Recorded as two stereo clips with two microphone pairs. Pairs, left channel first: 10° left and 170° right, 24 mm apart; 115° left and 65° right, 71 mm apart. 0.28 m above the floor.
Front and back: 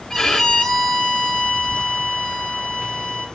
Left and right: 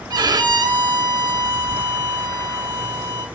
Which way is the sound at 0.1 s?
70° right.